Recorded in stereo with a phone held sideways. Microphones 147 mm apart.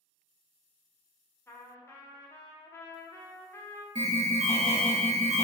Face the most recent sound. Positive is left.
turn(degrees=-50)  # may be behind; listen again after turning